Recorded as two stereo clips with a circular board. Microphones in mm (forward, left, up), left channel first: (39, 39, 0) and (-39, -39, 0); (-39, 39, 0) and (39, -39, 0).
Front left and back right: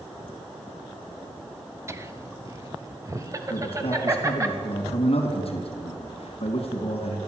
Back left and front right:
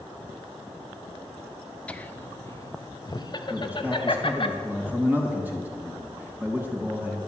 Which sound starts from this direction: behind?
Laughter, at 1.9 s.